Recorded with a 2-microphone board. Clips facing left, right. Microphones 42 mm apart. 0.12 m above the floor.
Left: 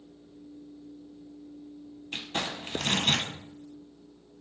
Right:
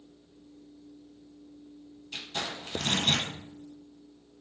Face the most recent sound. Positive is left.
turn(degrees=40)  # may be behind; listen again after turning